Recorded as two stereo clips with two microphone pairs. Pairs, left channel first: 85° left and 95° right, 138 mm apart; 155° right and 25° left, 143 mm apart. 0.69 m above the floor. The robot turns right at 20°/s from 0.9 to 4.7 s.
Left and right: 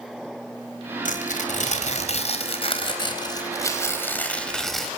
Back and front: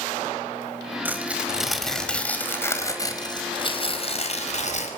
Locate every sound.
1.1 s tearing paper: 100° left, 4.5 m; by 4.9 s 170° left, 4.5 m